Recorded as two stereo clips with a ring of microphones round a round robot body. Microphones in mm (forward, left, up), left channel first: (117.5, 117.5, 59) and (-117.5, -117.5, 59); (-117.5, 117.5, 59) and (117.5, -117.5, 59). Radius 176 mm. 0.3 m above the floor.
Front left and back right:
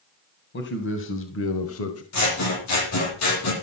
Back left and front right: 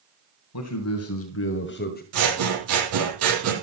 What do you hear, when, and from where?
0.5 s a man speaking: 100° left, 2.5 m; by 2.0 s 75° left, 1.7 m
2.1 s scissors: 5° left, 6 m